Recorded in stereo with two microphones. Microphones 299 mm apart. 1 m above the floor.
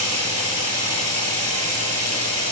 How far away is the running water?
About 7 m.